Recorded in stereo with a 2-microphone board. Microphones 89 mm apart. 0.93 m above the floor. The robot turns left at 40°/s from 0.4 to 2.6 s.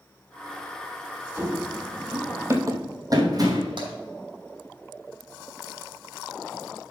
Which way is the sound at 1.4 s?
25° right (ahead or behind).